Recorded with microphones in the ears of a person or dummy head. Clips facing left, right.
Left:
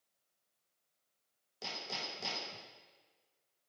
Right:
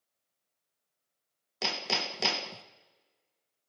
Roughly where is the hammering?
Right.